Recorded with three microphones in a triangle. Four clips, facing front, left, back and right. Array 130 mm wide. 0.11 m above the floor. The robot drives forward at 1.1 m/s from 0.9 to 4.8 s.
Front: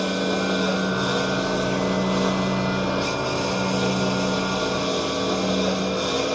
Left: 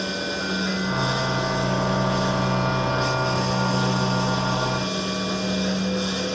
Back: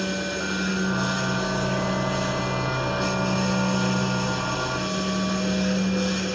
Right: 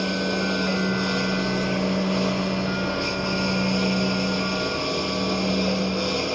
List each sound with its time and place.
0.0 s a lawn mower: 15° right; by 6.3 s 20° right